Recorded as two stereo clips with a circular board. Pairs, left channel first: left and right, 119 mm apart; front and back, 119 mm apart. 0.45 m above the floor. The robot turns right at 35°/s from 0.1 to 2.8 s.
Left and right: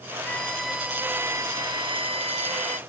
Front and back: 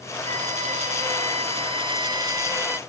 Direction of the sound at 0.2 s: 165° left.